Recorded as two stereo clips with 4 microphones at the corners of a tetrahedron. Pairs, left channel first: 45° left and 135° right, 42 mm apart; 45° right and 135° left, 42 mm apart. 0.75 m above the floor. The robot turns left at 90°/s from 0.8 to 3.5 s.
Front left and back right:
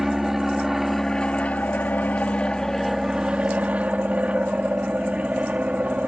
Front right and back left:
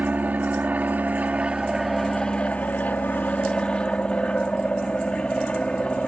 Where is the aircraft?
145° left; by 6.1 s 100° right.